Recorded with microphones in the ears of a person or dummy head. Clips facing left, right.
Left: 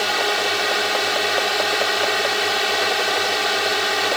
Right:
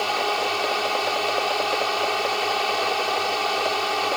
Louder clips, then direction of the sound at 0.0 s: Left 2 dB; 15° left (ahead or behind).